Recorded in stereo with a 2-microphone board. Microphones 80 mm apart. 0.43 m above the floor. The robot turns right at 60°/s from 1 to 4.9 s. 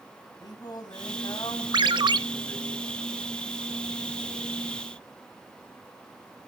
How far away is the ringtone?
About 0.6 m.